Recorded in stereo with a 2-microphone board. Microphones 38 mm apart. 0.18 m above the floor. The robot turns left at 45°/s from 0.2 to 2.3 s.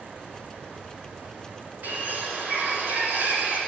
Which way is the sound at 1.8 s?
55° right (ahead or behind).